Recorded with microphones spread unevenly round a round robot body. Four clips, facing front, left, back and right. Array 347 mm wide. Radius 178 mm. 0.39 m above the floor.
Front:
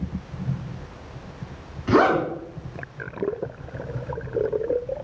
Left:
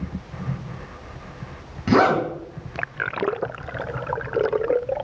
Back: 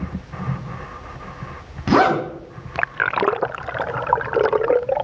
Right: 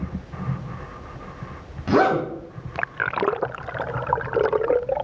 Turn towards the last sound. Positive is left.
turn(degrees=150)